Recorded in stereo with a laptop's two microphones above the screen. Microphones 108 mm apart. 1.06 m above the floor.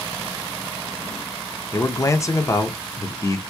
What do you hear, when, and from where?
1.7 s a man speaking: 30° left (ahead or behind), 0.8 m